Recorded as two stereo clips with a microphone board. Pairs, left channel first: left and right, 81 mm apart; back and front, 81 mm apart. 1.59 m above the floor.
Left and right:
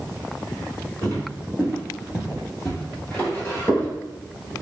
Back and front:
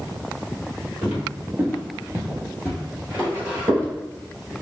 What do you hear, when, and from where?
1.0 s footsteps: 55° right, 2.0 m; by 3.9 s 55° left, 1.8 m